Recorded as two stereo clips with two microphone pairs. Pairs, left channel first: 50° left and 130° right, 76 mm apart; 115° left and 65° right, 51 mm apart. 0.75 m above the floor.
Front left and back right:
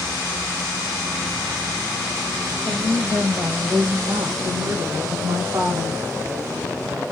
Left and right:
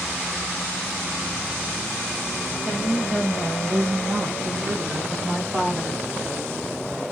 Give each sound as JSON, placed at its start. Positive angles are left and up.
{"t": 2.6, "sound": "a woman speaking", "azimuth_deg": -105, "distance_m": 5.5}